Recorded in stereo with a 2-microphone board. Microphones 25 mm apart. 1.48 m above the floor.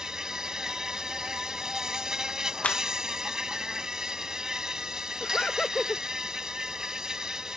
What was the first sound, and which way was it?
An insect, 25° right (ahead or behind).